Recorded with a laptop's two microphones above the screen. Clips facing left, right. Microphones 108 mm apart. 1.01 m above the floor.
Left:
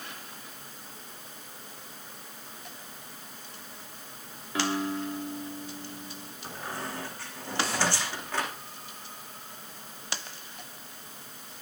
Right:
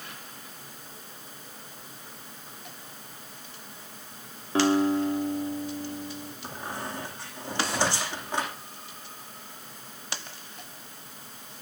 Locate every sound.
4.5 s a guitar: 30° right (ahead or behind), 1.6 m
6.4 s a squeak: 15° right (ahead or behind), 9.5 m